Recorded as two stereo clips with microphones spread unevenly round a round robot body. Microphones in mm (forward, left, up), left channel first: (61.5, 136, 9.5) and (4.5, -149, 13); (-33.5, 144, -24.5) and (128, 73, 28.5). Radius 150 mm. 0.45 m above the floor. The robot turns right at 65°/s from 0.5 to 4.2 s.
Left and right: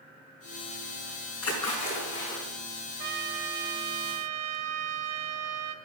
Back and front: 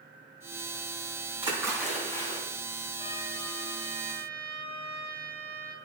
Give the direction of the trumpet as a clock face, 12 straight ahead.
5 o'clock.